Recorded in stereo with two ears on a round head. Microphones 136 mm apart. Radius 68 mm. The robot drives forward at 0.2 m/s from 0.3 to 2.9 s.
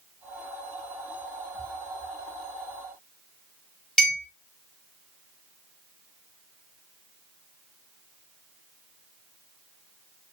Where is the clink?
5° left (ahead or behind), 0.7 m.